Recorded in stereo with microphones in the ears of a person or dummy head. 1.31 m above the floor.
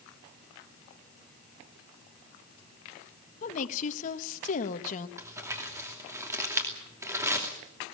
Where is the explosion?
No explosion in this recording.